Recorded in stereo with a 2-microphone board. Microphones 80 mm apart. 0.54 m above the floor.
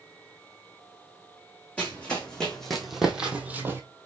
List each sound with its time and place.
1.8 s running footsteps: 15° left (ahead or behind), 1.4 m; by 3.8 s 30° right (ahead or behind), 0.7 m